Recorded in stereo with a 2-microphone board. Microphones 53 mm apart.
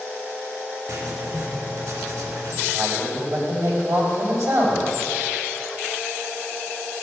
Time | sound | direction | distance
0.9 | writing | 70° right (ahead or behind) | 2.5 m
2.7 | a man speaking | 70° right (ahead or behind) | 5 m